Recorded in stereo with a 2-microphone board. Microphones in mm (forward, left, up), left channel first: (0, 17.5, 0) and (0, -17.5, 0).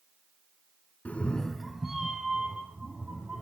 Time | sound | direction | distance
1.1 | a cat meowing | 50° left (ahead or behind) | 0.6 m